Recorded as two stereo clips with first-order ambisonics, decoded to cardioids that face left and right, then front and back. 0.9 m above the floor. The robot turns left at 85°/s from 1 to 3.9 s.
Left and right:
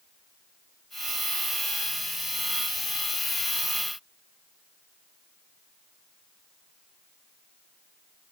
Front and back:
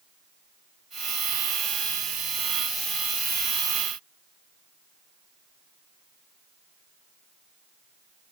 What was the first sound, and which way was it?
Only background noise.